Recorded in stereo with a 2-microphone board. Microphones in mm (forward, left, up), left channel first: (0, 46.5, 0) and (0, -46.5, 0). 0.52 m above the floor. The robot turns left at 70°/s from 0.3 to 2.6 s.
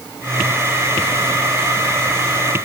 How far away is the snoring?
No snoring in this recording.